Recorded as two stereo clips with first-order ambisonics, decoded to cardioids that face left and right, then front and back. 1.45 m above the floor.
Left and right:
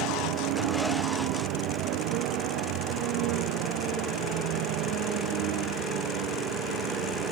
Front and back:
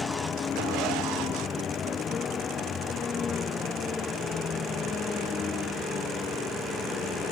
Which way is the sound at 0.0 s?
70° right.